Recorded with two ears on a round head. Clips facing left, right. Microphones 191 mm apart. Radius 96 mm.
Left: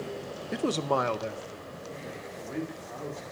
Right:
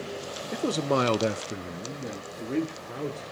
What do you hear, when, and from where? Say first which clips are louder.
0.5 s a man speaking: right 2 dB; 5° left (ahead or behind), 0.9 m; by 3.2 s 50° right (ahead or behind), 2.5 m